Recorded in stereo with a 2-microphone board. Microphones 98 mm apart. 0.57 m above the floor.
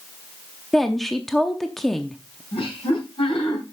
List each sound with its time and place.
0.7 s a woman speaking: centre (ahead or behind), 0.6 m
2.5 s laughter: 75° left (ahead or behind), 3 m